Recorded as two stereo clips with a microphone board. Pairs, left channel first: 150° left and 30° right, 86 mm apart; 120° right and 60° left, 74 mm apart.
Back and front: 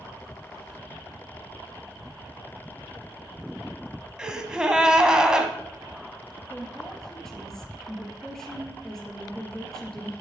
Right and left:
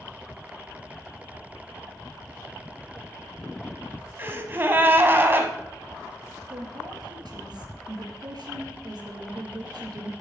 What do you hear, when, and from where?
4.2 s a gasp: 45° left, 1.5 m
6.5 s a woman speaking: 65° left, 3.5 m